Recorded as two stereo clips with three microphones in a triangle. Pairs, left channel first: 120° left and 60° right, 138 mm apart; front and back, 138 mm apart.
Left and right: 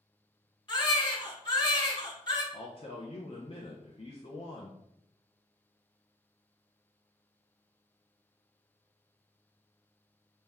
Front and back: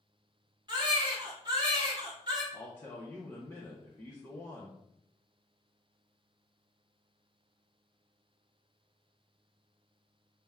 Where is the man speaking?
70° left, 0.6 m.